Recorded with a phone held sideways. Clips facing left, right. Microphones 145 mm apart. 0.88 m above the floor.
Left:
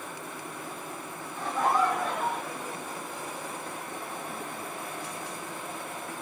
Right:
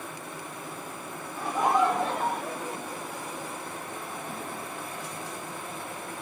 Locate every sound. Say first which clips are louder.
1.4 s laughter: right 2 dB; 10° right (ahead or behind), 1.2 m; by 3.5 s 70° right (ahead or behind), 1.2 m